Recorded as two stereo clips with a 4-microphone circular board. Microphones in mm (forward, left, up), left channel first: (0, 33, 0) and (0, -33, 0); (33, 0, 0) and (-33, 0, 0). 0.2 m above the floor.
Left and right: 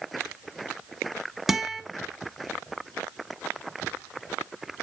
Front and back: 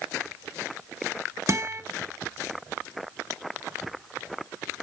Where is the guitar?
175° right, 0.6 m.